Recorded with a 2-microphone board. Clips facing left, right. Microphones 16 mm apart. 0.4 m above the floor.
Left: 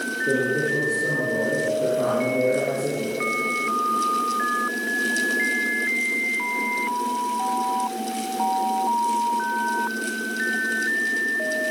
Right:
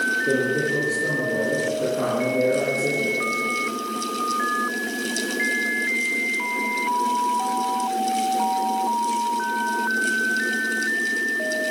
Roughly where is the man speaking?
Right.